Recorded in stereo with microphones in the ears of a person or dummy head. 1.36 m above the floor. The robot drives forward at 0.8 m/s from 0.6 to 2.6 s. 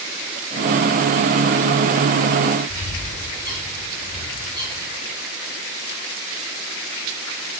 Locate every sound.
2.7 s a bird: 15° right (ahead or behind), 9 m